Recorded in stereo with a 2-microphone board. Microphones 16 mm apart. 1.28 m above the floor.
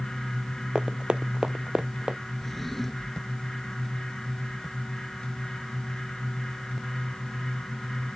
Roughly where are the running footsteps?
Right.